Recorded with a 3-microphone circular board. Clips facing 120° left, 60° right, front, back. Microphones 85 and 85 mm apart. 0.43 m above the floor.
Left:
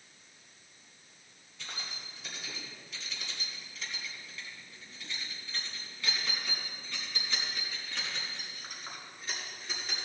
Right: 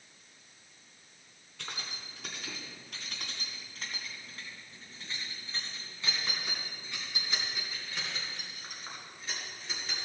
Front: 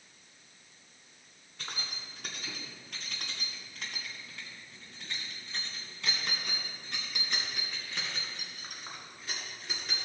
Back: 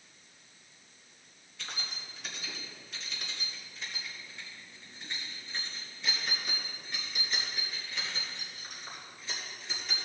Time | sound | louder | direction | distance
1.6 | keys jangling | right 1 dB, front 1 dB | 40° right | 3 m